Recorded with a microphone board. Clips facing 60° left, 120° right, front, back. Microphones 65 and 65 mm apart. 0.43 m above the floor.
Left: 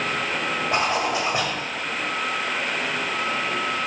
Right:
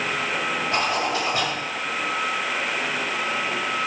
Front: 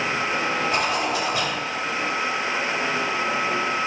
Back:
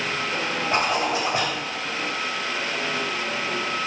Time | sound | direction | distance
0.7 | a zipper | 125° left | 1.7 m